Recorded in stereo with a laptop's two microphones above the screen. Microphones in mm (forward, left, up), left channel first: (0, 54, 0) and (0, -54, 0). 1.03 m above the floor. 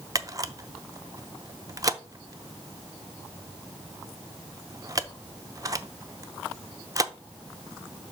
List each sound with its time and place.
0.1 s a camera shutter: 30° right (ahead or behind), 0.6 m